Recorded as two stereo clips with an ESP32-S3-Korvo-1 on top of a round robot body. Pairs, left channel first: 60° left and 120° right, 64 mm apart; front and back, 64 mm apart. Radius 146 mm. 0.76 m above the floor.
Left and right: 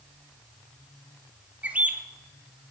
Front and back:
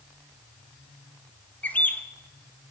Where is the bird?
60° right, 1.1 m.